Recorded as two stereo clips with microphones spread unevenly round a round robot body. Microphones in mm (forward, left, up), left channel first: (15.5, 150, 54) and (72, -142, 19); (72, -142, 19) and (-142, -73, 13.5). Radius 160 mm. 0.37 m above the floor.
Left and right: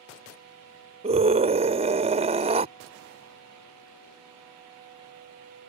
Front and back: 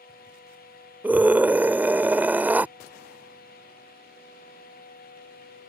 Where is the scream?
120° right.